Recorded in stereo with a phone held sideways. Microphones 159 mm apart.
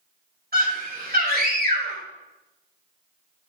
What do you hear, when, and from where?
0.5 s a scream: 75° right (ahead or behind), 3 m